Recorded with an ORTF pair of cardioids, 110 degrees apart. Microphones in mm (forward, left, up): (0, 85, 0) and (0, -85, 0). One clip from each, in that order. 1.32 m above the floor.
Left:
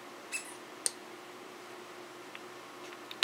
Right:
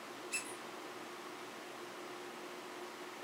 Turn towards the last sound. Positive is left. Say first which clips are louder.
# left 1 dB
turn(degrees=10)